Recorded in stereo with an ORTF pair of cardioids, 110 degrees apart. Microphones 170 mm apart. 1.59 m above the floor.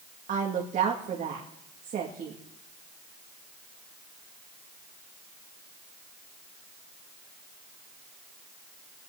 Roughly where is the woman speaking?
Ahead right.